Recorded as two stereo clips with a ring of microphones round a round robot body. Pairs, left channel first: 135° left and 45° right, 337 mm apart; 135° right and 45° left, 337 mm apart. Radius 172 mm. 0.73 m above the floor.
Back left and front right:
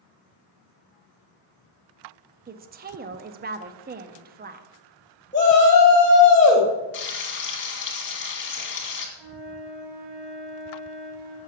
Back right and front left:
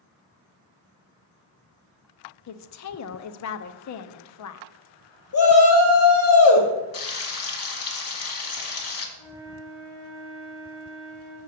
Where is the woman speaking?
105° right, 0.7 m.